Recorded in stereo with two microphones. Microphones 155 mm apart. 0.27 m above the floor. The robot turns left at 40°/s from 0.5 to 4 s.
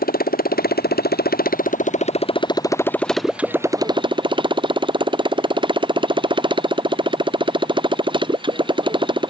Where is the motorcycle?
110° left; by 9.3 s 30° right.